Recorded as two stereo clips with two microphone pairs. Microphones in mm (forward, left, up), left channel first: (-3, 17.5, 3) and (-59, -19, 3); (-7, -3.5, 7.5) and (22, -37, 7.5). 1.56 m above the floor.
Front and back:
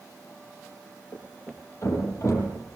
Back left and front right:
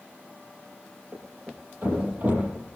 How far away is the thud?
About 6.5 m.